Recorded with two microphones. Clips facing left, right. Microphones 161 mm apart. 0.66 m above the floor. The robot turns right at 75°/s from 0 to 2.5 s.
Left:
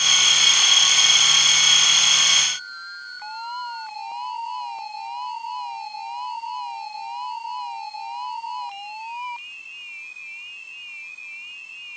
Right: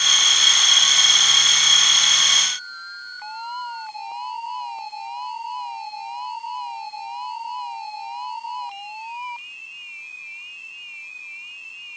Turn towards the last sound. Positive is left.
No sound to turn to.